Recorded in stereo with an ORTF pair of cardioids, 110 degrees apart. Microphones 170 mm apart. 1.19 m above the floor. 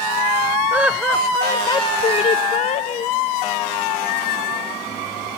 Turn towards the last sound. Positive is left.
turn(degrees=45)